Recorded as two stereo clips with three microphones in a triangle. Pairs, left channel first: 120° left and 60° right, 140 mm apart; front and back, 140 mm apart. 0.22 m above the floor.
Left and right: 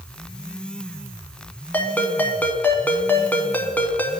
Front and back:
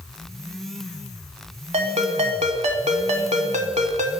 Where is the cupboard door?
I don't hear a cupboard door.